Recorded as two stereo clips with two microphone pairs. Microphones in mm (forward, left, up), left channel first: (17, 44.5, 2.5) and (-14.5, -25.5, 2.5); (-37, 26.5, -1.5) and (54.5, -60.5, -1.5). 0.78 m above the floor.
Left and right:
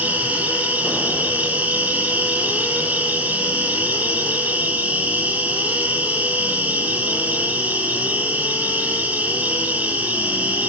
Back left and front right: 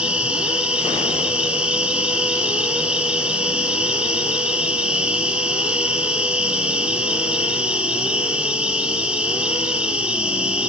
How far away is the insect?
About 1.4 m.